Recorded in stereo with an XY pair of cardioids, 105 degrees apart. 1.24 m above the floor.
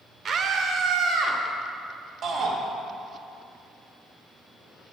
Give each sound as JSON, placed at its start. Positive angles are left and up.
{"t": 0.2, "sound": "a scream", "azimuth_deg": -45, "distance_m": 0.9}
{"t": 2.2, "sound": "a shout", "azimuth_deg": -65, "distance_m": 2.0}